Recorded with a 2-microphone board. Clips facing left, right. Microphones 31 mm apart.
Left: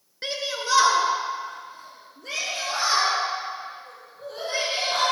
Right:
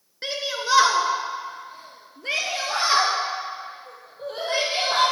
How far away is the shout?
About 1.4 m.